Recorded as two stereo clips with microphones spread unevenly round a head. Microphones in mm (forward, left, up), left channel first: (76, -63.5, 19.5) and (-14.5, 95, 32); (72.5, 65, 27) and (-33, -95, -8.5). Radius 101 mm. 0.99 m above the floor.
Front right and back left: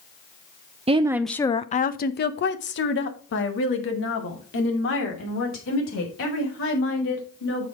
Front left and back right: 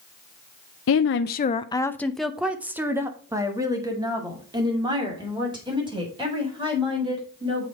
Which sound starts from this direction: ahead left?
A woman speaking, at 0.9 s.